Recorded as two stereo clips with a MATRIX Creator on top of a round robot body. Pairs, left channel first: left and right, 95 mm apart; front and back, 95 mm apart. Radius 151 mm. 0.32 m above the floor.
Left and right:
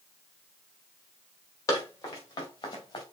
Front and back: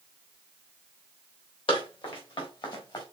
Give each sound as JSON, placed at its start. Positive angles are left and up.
{"t": 1.7, "sound": "running footsteps", "azimuth_deg": 30, "distance_m": 4.0}